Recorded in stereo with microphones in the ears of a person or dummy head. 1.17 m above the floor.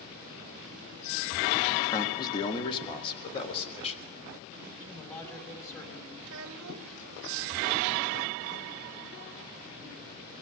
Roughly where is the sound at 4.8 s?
Centre.